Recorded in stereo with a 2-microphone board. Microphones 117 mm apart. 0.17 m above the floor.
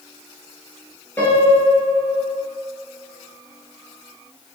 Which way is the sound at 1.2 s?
15° left (ahead or behind).